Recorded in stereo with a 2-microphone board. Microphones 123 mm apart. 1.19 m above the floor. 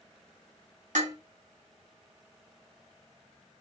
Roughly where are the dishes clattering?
Right.